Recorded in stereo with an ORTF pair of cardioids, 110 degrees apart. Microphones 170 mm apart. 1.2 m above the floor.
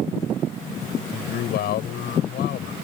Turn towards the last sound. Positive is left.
turn(degrees=70)